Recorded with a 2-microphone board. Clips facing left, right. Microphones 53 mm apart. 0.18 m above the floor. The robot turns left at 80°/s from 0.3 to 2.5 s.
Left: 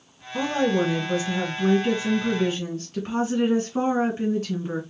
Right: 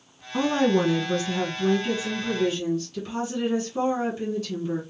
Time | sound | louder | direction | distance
0.3 | a woman speaking | right 1 dB | 125° right | 2.0 m